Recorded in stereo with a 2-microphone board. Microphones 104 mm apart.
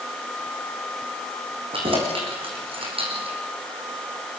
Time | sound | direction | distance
1.7 | keys jangling | 60° right (ahead or behind) | 6 m